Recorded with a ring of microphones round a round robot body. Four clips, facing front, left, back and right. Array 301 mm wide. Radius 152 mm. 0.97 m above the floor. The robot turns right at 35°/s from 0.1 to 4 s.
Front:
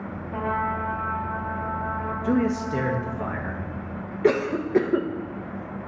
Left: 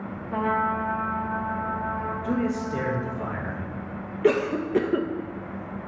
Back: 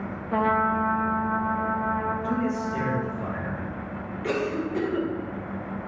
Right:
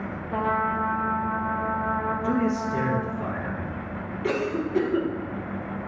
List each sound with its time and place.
0.3 s a trumpet: 175° left, 0.6 m; by 3.2 s 80° right, 0.6 m
2.2 s a man speaking: 20° right, 1.3 m; by 3.6 s 30° left, 1.3 m
4.2 s a cough: 35° left, 0.8 m